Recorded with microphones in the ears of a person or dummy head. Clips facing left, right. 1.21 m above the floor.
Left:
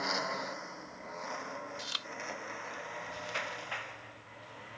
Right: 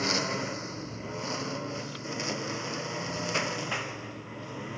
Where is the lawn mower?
45° right (ahead or behind); by 4.8 s 65° right (ahead or behind).